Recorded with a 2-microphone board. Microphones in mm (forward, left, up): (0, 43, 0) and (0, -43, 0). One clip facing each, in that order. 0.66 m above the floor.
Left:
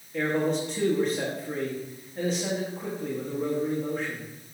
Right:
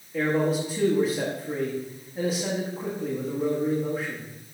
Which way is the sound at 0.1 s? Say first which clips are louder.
Right 2 dB; 5° right (ahead or behind).